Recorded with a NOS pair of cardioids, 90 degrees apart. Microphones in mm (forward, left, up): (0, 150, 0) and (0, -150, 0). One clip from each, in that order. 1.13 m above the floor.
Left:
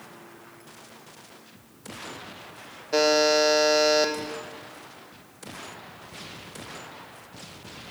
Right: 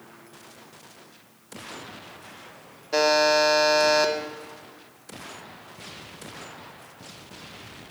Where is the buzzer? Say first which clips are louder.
Right 1 dB; 5° right, 1.0 m.